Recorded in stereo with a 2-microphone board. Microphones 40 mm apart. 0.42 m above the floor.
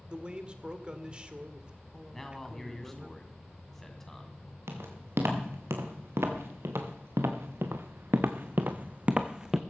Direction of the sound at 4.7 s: 85° right.